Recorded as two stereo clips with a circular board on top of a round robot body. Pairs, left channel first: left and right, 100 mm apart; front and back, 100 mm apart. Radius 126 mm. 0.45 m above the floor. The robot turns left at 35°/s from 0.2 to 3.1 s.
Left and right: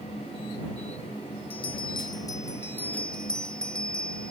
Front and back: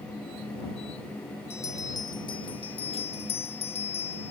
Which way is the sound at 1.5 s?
65° left.